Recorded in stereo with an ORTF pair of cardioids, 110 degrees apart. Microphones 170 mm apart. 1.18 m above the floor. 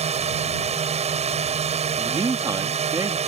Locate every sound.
0.0 s a drone: 40° right
2.0 s a man speaking: 20° right